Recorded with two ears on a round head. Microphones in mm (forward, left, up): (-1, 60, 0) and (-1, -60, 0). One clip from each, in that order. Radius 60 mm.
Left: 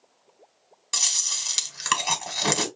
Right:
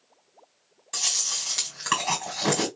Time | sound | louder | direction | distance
0.9 | chewing | left 2 dB | 60° left (ahead or behind) | 1.7 m